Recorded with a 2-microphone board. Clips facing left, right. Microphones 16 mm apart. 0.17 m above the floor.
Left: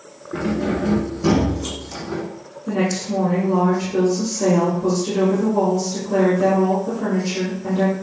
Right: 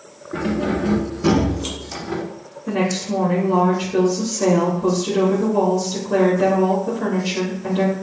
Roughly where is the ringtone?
I don't hear a ringtone.